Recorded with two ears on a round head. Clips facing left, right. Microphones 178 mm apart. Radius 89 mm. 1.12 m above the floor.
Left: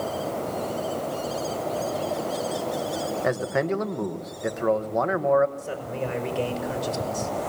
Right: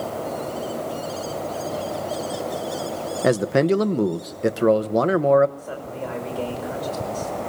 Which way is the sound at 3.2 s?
40° right (ahead or behind).